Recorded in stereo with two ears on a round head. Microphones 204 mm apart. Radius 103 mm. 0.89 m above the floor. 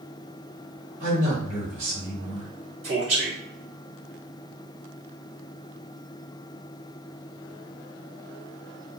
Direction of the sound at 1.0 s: 60° right (ahead or behind).